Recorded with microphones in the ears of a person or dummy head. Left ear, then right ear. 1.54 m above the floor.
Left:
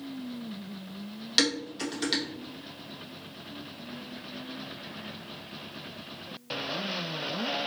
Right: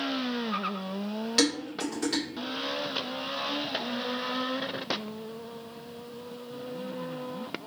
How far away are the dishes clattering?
About 1.3 m.